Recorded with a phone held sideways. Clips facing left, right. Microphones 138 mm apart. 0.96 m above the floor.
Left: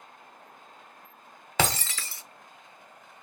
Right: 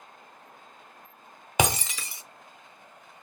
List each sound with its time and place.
1.6 s breaking glass: 15° right (ahead or behind), 0.7 m